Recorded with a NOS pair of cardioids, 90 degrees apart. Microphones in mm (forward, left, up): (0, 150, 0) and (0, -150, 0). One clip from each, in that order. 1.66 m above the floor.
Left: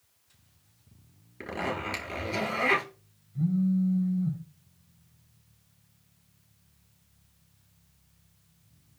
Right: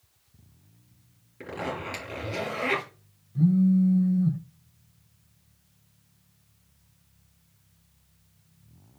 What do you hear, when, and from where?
1.4 s a zipper: 30° left, 4.5 m
3.4 s a phone buzzing: 30° right, 1.6 m